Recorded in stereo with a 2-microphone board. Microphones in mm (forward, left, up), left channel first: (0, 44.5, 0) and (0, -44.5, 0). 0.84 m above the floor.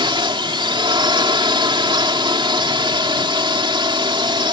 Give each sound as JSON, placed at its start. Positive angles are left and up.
{"t": 0.0, "sound": "a drone", "side_deg": -65}